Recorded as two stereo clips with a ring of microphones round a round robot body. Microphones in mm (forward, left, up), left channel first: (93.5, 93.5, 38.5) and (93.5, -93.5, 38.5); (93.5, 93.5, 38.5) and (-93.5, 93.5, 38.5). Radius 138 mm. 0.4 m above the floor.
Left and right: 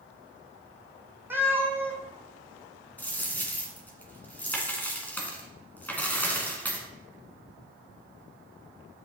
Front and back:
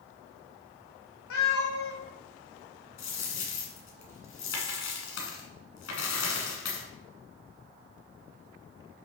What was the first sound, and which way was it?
A cat meowing, 10° right.